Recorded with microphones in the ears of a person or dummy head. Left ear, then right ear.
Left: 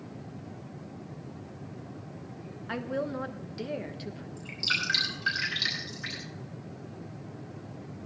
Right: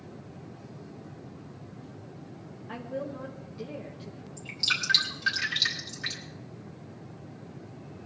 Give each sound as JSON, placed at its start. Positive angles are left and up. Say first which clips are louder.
{"t": 2.7, "sound": "a woman speaking", "louder": "left 4 dB", "side_deg": 40, "distance_m": 1.3}
{"t": 4.4, "sound": "dripping", "louder": "right 1 dB", "side_deg": -10, "distance_m": 5.0}